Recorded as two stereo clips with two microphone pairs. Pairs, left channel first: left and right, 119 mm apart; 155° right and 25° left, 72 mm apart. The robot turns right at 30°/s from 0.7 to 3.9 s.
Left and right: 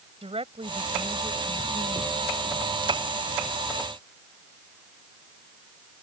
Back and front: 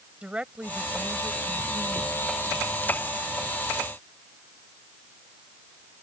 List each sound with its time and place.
0.2 s a woman speaking: 50° right; by 2.2 s 5° right